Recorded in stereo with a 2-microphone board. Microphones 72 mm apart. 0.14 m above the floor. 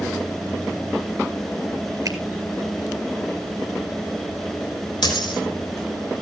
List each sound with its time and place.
2.0 s a finger snap: 55° right (ahead or behind), 2 m
5.0 s a dropped coin: 75° left (ahead or behind), 2.5 m